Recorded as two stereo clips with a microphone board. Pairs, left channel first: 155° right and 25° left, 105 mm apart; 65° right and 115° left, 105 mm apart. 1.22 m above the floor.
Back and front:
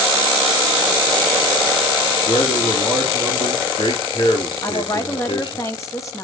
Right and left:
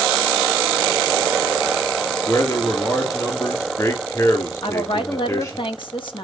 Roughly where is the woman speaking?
Right.